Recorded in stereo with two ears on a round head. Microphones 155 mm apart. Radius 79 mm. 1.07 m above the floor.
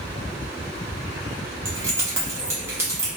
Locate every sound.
1.6 s keys jangling: 15° right (ahead or behind), 0.8 m